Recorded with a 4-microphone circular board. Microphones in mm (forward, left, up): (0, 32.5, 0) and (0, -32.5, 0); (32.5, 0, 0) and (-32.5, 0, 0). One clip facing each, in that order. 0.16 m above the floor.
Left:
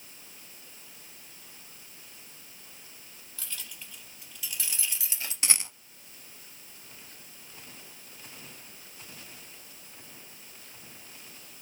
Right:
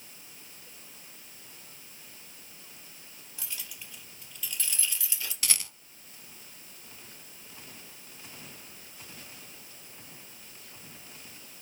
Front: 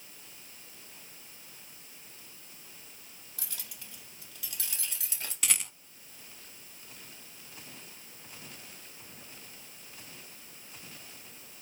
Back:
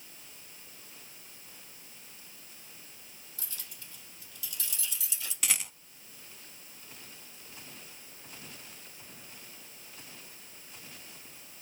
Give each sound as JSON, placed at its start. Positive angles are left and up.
{"t": 3.4, "sound": "keys jangling", "azimuth_deg": -15, "distance_m": 2.5}
{"t": 5.4, "sound": "a rattle", "azimuth_deg": 95, "distance_m": 0.7}